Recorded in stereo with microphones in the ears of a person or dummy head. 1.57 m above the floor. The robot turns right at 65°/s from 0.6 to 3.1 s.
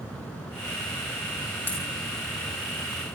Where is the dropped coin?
10° left (ahead or behind), 2.5 m; by 1.9 s centre (ahead or behind), 2.5 m.